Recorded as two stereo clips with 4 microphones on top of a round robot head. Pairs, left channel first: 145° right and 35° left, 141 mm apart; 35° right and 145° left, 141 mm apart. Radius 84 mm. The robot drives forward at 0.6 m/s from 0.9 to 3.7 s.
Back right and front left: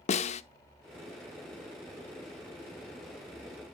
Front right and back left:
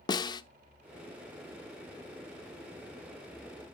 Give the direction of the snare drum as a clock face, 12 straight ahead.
3 o'clock.